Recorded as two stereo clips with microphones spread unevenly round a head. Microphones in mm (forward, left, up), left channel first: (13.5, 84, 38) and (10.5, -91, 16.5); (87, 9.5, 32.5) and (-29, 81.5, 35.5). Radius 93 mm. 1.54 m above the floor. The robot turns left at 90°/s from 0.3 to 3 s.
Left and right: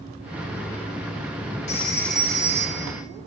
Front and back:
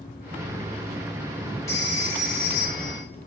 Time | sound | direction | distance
1.7 | a phone ringing | 40° left | 2 m